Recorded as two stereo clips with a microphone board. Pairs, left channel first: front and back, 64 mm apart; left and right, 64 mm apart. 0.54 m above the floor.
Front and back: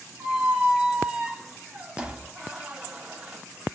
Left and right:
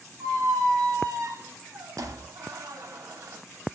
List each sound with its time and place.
0.2 s a squeak: 110° right, 0.7 m